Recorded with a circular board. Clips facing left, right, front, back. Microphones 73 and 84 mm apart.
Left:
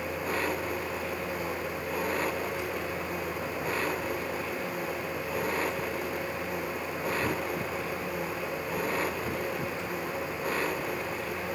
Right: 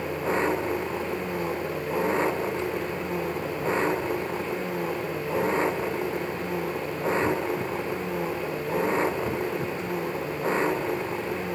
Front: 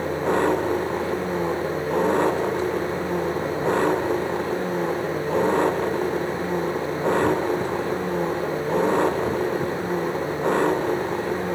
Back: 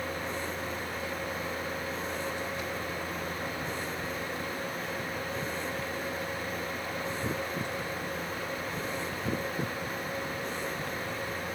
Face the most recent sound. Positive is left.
turn(degrees=-25)